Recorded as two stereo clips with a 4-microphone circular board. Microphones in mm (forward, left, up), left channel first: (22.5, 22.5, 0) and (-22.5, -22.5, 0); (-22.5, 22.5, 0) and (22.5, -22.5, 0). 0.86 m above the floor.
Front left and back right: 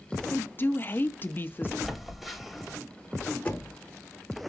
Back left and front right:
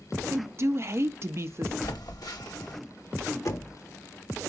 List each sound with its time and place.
0.3 s a woman speaking: 5° right, 0.5 m
1.8 s a phone buzzing: 135° left, 1.0 m
3.5 s knocking: 110° left, 1.2 m